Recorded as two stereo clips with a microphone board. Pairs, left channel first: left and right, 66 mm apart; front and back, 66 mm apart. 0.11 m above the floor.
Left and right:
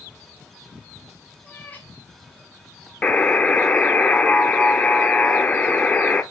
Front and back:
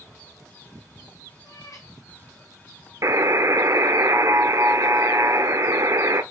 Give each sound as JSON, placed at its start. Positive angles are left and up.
{"t": 1.4, "sound": "a cat meowing", "azimuth_deg": 20, "distance_m": 2.0}
{"t": 3.0, "sound": "a buzzer", "azimuth_deg": 155, "distance_m": 0.6}